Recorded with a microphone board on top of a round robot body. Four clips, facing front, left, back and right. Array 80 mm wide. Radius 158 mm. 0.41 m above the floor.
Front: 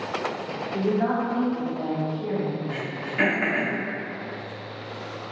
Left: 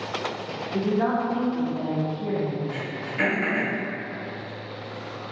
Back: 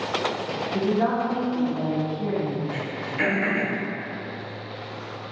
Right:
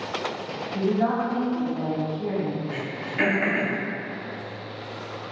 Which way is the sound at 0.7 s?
95° left.